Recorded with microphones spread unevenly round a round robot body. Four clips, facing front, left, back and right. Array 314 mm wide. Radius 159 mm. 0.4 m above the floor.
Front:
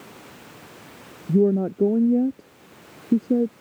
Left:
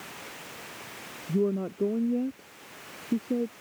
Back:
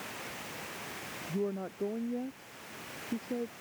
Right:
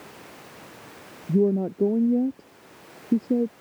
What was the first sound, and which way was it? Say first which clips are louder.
A woman speaking: right 6 dB, front 16 dB; 25° right.